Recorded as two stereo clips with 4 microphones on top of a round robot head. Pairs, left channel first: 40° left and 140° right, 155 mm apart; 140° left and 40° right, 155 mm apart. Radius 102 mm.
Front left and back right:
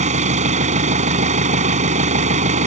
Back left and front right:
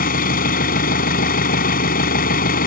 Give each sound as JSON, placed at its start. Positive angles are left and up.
{"t": 0.0, "sound": "an engine running", "azimuth_deg": 175}